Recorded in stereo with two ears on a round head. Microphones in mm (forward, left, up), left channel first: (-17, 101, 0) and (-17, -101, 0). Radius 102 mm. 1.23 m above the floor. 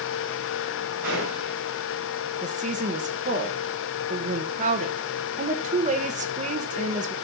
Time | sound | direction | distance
1.0 | a gunshot | 40° right (ahead or behind) | 7 m
2.4 | a woman speaking | 35° right (ahead or behind) | 1.4 m